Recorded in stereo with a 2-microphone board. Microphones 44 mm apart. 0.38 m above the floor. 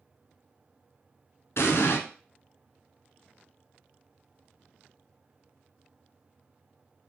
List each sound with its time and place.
1.6 s an explosion: 80° left, 0.8 m